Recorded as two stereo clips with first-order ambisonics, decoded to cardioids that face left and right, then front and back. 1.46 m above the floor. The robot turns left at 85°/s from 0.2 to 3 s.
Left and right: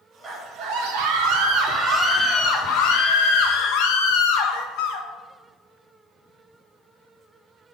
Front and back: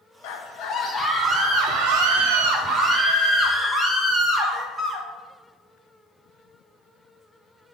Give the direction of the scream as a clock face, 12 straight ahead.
1 o'clock.